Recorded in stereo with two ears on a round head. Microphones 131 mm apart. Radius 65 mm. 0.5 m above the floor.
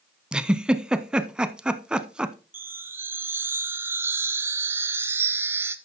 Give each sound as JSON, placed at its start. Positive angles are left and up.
{"t": 0.3, "sound": "a giggle", "side_deg": -5, "distance_m": 0.5}
{"t": 2.5, "sound": "a chime", "side_deg": -15, "distance_m": 0.9}